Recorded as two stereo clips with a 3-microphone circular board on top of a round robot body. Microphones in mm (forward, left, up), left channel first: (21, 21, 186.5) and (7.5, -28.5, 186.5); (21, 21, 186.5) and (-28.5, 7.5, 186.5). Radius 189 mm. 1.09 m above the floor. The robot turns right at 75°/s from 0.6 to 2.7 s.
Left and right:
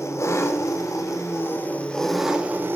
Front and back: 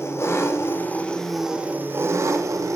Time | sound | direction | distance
0.0 | an engine running | 50° left | 2.5 m